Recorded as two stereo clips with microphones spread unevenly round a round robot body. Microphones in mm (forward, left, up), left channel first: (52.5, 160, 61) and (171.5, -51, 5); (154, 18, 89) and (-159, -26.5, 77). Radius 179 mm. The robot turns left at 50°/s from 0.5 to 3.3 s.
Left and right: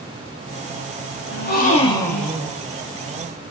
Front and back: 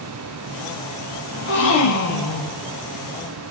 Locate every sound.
1.3 s a gasp: 75° left, 0.9 m; by 2.6 s 15° left, 0.9 m